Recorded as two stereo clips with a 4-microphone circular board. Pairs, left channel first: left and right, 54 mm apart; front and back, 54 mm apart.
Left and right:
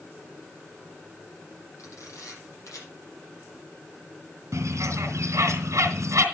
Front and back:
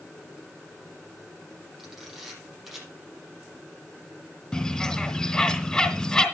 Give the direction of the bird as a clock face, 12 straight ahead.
3 o'clock.